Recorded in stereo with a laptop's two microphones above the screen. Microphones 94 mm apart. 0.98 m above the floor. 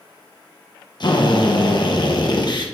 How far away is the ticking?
I don't hear ticking.